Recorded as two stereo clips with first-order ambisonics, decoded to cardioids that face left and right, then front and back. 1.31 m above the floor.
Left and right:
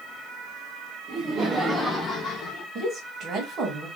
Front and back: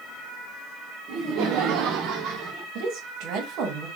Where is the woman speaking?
145° right, 1.2 m.